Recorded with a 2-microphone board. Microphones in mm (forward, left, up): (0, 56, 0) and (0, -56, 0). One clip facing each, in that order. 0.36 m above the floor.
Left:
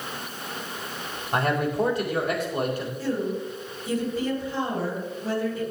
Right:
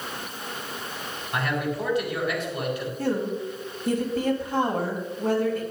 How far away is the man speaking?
About 2 m.